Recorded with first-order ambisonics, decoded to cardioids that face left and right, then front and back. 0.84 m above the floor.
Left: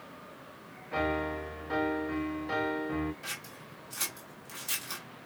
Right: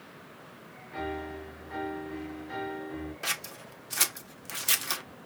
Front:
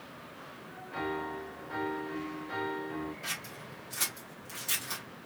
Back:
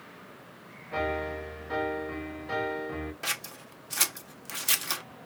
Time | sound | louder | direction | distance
0.9 | a piano | left 5 dB, back 5 dB | 125° left | 0.9 m
3.2 | scissors | right 7 dB, back 5 dB | 140° right | 0.6 m